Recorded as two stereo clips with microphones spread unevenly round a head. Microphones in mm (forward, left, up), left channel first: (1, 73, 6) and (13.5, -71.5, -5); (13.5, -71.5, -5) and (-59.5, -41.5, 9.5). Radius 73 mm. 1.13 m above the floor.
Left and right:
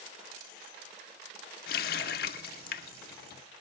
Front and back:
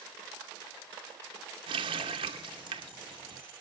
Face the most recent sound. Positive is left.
turn(degrees=120)